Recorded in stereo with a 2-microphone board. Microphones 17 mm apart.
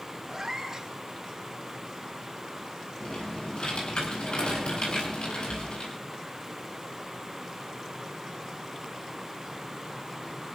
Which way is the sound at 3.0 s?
75° left (ahead or behind).